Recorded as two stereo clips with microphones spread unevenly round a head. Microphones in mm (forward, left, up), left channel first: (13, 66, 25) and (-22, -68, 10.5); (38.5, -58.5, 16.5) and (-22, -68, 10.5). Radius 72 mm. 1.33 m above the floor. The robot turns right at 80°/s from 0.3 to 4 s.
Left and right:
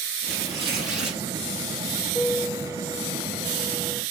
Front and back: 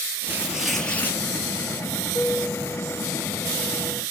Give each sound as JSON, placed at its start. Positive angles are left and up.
{"t": 0.2, "sound": "tearing paper", "azimuth_deg": -110, "distance_m": 6.0}
{"t": 2.1, "sound": "a piano", "azimuth_deg": 15, "distance_m": 3.0}